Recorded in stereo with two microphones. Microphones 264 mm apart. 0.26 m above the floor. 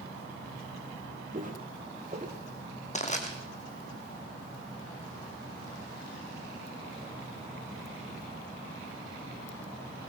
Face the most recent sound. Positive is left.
turn(degrees=25)  # may be behind; listen again after turning